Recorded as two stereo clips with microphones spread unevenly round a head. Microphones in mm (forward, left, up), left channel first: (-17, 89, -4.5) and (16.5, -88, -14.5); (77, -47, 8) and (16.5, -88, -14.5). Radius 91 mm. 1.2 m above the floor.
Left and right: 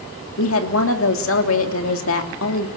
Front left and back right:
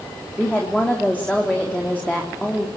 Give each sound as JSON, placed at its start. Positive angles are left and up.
{"t": 0.4, "sound": "a woman speaking", "azimuth_deg": 120, "distance_m": 3.0}